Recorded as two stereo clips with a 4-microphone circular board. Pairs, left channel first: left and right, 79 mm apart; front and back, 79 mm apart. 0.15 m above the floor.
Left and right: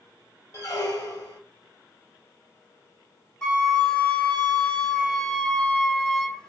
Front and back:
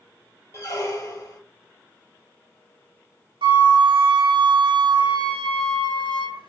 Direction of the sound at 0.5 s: 50° left.